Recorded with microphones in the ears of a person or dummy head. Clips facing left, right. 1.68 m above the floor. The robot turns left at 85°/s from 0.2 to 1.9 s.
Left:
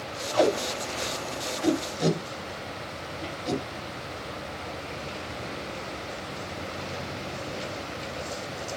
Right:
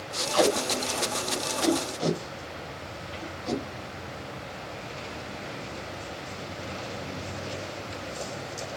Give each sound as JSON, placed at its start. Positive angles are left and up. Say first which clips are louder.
{"t": 0.3, "sound": "tape being pulled", "louder": "even", "side_deg": -60, "distance_m": 1.2}